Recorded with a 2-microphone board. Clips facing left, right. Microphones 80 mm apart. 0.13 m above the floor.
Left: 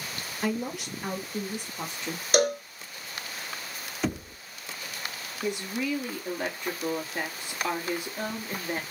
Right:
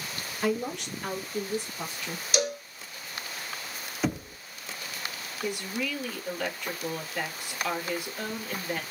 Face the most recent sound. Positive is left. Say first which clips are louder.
# left 2 dB
turn(degrees=25)  # may be behind; listen again after turning